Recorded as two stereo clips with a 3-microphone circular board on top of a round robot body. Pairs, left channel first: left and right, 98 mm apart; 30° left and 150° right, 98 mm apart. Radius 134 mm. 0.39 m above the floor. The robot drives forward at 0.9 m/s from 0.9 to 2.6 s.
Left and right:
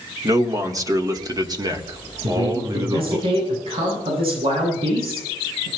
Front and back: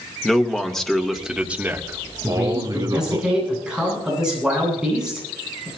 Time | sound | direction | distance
0.2 | a man speaking | 55° right | 1.7 m
2.2 | a man speaking | 65° right | 9.5 m